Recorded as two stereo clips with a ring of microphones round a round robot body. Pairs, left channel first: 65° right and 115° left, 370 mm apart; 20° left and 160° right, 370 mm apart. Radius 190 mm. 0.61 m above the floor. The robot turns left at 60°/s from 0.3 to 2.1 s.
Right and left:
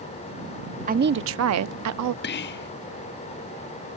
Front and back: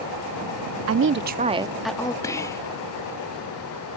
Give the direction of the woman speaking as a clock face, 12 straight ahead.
6 o'clock.